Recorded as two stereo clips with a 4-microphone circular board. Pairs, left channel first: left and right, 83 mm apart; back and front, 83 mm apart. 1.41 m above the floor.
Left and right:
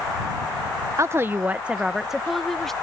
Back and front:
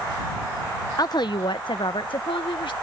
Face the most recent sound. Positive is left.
turn(degrees=175)